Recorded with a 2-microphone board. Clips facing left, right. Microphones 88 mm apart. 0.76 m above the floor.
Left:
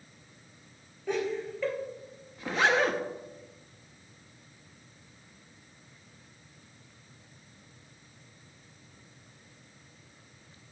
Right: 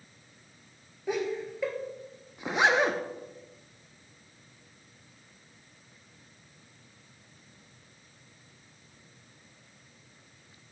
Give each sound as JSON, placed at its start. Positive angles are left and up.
{"t": 1.1, "sound": "laughter", "side_deg": -15, "distance_m": 2.5}
{"t": 2.4, "sound": "a zipper", "side_deg": -20, "distance_m": 0.5}